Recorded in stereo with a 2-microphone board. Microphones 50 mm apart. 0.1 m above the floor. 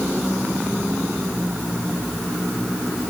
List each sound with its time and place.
Only background noise.